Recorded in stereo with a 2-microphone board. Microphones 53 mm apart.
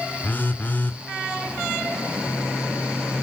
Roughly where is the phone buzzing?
Left.